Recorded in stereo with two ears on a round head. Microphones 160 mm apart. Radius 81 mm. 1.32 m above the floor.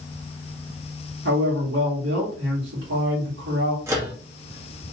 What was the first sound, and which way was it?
A man speaking, 75° right (ahead or behind).